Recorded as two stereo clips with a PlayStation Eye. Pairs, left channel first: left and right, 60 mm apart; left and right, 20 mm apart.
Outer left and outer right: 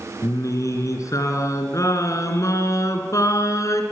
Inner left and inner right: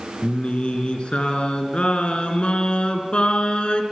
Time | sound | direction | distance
0.2 | singing | 65° left (ahead or behind) | 3.5 m